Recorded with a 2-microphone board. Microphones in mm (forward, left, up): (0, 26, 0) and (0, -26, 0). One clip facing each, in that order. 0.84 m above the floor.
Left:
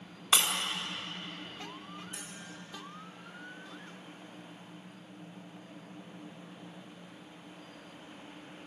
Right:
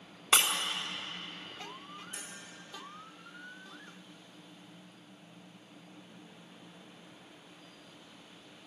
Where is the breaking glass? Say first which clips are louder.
Right 1 dB; 35° right (ahead or behind), 1.7 m.